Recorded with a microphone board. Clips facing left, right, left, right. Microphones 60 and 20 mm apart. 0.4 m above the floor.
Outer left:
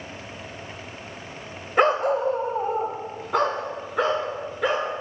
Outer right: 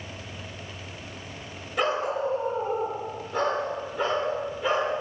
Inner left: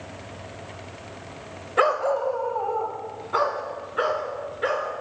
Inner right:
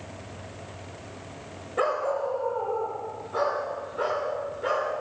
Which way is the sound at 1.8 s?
45° left (ahead or behind).